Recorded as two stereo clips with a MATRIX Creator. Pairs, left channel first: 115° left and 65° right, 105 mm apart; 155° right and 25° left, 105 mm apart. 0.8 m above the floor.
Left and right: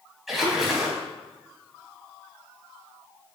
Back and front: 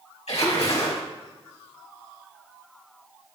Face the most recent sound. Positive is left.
turn(degrees=-155)